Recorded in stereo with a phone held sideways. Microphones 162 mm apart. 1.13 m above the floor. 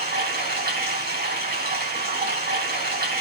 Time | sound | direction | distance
0.0 | running water | 80° right | 3.5 m